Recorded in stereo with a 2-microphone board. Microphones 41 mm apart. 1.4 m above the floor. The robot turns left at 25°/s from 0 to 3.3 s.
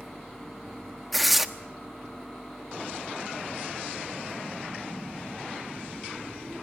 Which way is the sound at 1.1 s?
Centre (ahead or behind).